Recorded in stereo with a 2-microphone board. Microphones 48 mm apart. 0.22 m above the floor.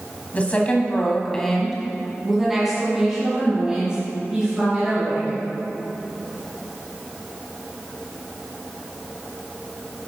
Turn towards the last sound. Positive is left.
turn(degrees=-25)  # may be behind; listen again after turning